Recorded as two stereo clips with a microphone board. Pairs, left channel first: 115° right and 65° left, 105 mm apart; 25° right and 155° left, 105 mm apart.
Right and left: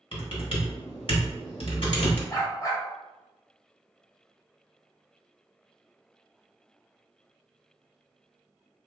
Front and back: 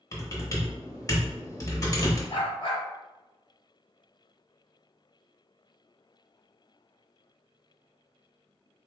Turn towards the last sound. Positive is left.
turn(degrees=-55)